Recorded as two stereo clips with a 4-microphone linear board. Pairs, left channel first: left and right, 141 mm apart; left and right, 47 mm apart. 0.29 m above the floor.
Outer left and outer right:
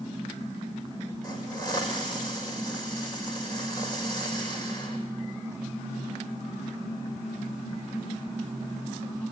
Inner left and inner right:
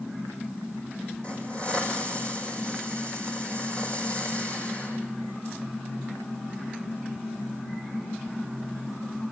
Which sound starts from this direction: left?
A hiss, at 1.2 s.